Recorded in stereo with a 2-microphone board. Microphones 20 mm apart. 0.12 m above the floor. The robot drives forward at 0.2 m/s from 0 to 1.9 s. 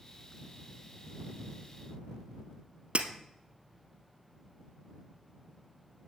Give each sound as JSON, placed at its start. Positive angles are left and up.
{"t": 3.0, "sound": "breaking glass", "side_deg": -70, "distance_m": 0.9}